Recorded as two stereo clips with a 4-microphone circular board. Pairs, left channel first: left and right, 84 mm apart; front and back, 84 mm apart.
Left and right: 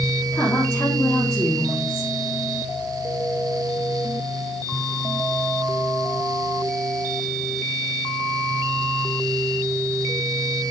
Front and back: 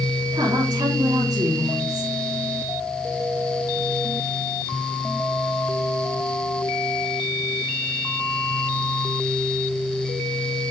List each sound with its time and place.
0.3 s a woman speaking: 155° left, 3.5 m